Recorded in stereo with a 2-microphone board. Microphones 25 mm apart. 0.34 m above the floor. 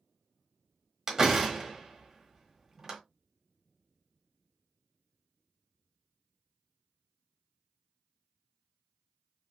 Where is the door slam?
15° right (ahead or behind), 1.3 m.